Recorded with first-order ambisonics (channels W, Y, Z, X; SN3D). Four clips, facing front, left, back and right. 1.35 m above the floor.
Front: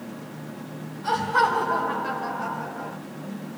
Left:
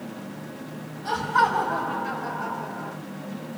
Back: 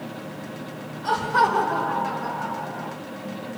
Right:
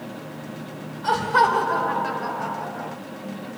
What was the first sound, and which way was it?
Laughter, 105° right.